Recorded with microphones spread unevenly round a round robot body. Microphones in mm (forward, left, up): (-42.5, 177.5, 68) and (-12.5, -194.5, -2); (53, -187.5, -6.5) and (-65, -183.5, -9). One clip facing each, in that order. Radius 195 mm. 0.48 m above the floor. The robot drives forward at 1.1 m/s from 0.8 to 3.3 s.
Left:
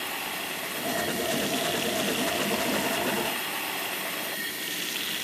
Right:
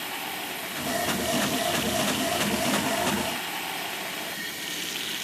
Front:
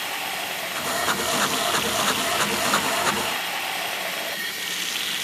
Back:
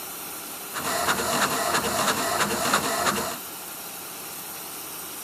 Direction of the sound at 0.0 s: Straight ahead.